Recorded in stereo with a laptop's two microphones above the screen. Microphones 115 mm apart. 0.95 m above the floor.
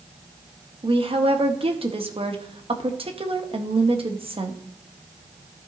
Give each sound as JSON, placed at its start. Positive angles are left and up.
{"t": 0.8, "sound": "a woman speaking", "side_deg": -55, "distance_m": 0.9}